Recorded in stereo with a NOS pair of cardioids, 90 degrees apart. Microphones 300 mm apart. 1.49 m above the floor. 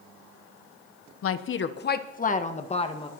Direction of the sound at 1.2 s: 50° left.